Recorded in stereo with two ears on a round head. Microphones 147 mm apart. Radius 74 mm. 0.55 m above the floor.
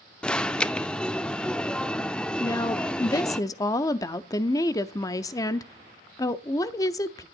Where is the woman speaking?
20° left (ahead or behind), 0.7 m.